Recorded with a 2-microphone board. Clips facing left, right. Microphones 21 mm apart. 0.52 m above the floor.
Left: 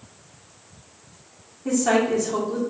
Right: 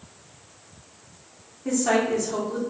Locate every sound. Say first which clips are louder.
1.6 s a woman speaking: left 2 dB; 5° left (ahead or behind), 1.5 m